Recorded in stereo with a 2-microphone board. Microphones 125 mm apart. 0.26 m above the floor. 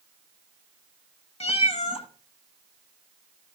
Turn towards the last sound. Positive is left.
turn(degrees=55)  # may be behind; listen again after turning